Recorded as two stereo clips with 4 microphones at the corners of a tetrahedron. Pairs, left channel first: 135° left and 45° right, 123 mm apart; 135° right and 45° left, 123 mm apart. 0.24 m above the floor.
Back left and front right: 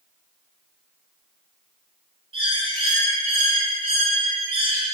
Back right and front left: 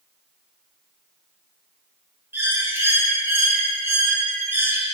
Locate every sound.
2.3 s a bird: 25° right, 1.1 m